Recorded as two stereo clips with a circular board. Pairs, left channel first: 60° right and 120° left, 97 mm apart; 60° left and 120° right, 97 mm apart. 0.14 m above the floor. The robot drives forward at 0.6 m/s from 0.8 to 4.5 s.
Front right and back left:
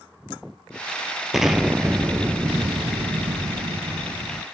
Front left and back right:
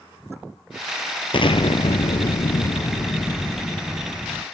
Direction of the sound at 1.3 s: 35° left.